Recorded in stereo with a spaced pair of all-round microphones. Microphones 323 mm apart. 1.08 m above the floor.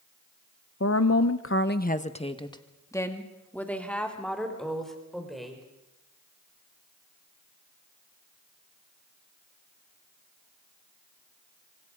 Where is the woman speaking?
45° left (ahead or behind), 0.8 m; by 5.6 s centre (ahead or behind), 5 m.